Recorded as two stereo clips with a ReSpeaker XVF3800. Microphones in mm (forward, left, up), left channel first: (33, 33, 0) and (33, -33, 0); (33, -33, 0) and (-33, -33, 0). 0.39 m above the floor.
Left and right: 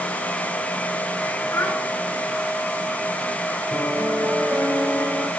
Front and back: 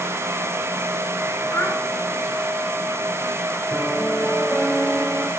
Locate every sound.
1.5 s a child speaking: 45° left, 3 m
3.7 s a piano: 60° right, 1.5 m